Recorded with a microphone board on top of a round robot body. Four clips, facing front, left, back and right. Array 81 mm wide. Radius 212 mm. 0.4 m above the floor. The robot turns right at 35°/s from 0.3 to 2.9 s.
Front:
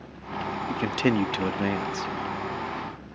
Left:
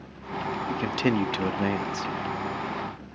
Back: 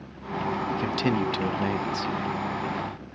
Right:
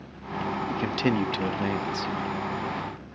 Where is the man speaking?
5° left; by 2.1 s 50° left.